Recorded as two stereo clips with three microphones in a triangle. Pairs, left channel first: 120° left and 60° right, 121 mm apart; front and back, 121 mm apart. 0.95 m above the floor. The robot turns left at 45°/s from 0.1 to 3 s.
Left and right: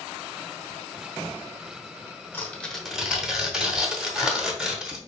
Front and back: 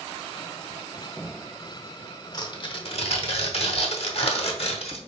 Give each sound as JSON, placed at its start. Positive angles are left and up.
{"t": 2.3, "sound": "tearing paper", "azimuth_deg": 55, "distance_m": 0.9}